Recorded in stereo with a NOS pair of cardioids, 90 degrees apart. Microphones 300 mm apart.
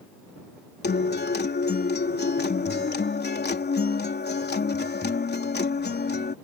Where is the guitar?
35° left.